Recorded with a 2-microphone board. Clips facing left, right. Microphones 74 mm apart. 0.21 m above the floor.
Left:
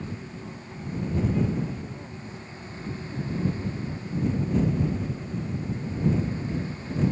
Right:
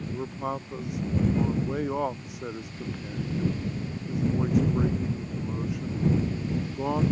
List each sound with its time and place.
0.1 s a man speaking: 80° right